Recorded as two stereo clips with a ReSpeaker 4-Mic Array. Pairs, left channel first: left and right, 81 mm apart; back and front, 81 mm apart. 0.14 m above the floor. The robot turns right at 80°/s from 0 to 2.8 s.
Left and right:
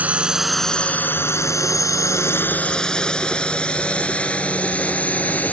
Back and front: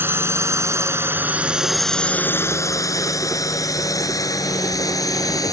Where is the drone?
35° right; by 5.5 s 155° left.